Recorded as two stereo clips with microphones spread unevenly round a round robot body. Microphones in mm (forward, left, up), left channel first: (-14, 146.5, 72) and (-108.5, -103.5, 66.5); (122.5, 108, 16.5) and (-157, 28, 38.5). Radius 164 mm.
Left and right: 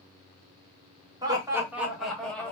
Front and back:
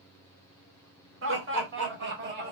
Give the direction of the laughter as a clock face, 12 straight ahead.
6 o'clock.